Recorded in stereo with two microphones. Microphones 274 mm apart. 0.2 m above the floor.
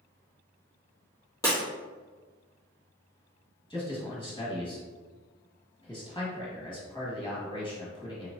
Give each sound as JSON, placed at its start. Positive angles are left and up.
{"t": 1.4, "sound": "breaking glass", "side_deg": 10, "distance_m": 1.8}
{"t": 3.7, "sound": "a man speaking", "side_deg": 20, "distance_m": 1.2}